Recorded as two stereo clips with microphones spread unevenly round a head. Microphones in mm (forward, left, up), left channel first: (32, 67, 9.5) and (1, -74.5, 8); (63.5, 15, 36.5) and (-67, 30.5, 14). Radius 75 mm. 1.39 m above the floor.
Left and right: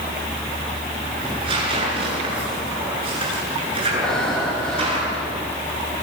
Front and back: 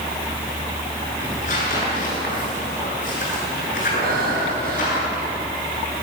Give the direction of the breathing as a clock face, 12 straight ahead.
7 o'clock.